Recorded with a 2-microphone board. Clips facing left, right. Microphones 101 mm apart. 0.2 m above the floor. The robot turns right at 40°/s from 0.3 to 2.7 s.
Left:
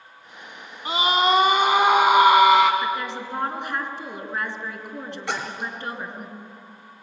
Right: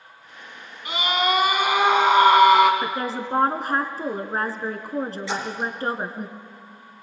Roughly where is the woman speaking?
Right.